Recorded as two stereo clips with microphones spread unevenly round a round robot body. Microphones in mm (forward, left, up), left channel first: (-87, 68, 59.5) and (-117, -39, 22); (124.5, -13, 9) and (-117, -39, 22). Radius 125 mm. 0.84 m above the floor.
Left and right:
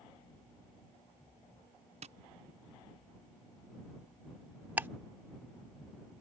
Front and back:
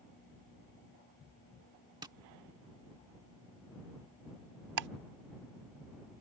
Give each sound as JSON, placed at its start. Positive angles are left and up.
{"t": 2.0, "sound": "tapping", "azimuth_deg": -100}
{"t": 4.8, "sound": "ticking", "azimuth_deg": 180}